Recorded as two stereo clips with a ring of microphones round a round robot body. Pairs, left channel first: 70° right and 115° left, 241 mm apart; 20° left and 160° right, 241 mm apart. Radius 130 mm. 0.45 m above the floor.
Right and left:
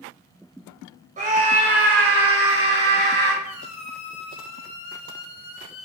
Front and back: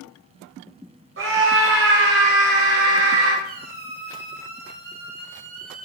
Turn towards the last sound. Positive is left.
turn(degrees=-105)